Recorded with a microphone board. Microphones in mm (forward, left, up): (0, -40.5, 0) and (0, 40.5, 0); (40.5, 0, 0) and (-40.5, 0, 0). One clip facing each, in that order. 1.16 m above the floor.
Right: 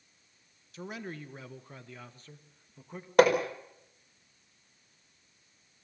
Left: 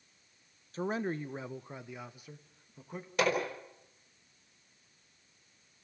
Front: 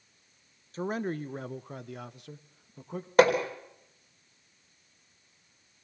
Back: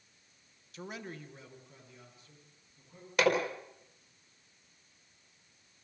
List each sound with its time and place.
0.7 s a man speaking: 45° left, 1.0 m; by 3.1 s 5° left, 1.9 m
3.2 s hammering: 55° right, 4.5 m